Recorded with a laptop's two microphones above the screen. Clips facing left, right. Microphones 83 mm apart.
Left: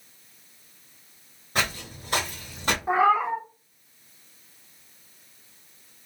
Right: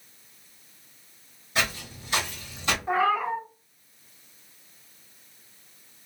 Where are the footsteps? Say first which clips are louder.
Left 1 dB; 45° left (ahead or behind), 1.5 m.